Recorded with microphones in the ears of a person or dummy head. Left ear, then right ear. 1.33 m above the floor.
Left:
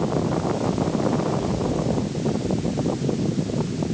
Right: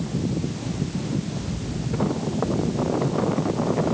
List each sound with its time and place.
Only background noise.